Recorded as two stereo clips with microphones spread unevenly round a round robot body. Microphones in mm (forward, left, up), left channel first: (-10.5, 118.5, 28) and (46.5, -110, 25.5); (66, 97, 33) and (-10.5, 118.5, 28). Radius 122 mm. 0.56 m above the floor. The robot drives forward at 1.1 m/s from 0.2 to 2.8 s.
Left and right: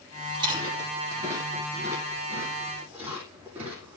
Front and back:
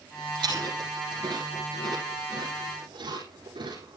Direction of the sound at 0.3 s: 145° right.